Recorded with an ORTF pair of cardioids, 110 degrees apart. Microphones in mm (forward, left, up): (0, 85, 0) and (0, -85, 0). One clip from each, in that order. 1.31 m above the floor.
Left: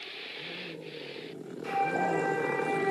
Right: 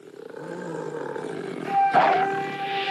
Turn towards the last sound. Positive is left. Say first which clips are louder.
# right 10 dB
turn(degrees=-10)